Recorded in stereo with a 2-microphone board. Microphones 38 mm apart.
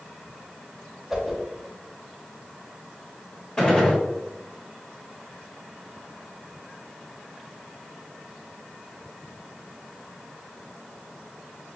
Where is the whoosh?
10° right (ahead or behind), 0.8 m.